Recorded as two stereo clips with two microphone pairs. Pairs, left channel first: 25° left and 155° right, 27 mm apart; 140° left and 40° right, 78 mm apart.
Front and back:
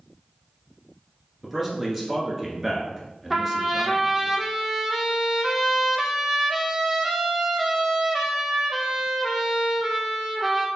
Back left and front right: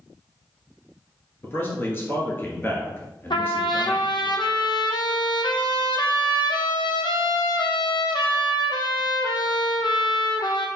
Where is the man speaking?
145° left, 1.2 m.